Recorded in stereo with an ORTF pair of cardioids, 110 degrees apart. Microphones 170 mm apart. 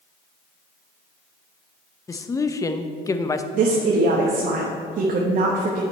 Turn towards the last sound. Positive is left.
turn(degrees=-50)